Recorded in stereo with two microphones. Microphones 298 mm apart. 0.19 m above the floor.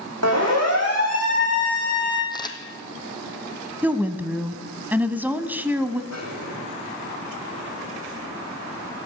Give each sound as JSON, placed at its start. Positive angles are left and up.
{"t": 0.2, "sound": "a siren", "side_deg": -60, "distance_m": 10.0}
{"t": 2.3, "sound": "a camera shutter", "side_deg": 15, "distance_m": 2.0}
{"t": 3.8, "sound": "a woman speaking", "side_deg": -5, "distance_m": 1.0}
{"t": 6.1, "sound": "a snare drum", "side_deg": 60, "distance_m": 7.5}